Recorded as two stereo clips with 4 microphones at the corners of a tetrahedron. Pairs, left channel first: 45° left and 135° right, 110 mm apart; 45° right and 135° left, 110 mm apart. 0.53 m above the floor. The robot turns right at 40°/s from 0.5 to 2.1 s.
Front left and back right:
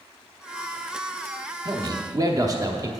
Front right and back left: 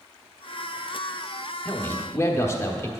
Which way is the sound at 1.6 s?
115° right.